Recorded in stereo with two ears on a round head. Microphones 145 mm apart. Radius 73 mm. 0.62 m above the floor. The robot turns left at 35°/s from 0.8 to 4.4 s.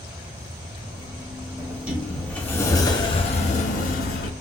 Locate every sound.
1.6 s a sliding door: 160° right, 0.7 m; by 4.3 s 105° left, 0.7 m